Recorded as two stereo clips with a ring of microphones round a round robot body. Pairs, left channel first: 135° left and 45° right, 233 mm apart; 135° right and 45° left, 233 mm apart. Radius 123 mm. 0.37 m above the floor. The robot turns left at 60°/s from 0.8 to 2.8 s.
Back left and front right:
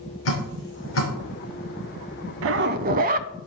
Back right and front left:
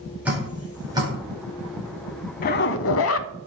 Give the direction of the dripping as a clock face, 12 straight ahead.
8 o'clock.